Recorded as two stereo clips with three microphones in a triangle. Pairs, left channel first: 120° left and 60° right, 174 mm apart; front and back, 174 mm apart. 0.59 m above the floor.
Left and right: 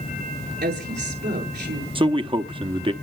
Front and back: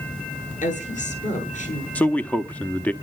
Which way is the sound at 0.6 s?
45° right.